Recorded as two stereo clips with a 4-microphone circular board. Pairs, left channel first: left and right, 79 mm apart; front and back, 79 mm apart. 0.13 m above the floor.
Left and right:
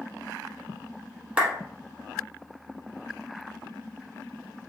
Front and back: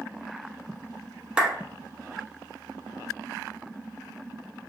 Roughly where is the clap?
Behind right.